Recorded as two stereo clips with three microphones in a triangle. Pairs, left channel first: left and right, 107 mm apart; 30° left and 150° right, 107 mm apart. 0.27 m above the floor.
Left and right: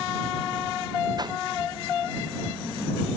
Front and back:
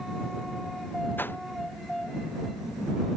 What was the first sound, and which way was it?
A whoosh, 40° right.